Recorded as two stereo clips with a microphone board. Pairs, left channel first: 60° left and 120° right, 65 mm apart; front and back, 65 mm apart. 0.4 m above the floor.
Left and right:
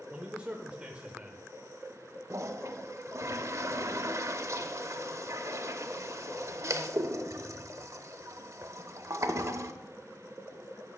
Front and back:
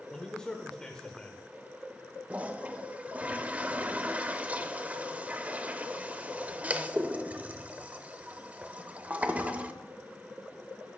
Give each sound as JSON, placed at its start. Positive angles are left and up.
{"t": 0.1, "sound": "a man speaking", "azimuth_deg": -65, "distance_m": 0.9}
{"t": 2.3, "sound": "a toilet flushing", "azimuth_deg": -120, "distance_m": 0.6}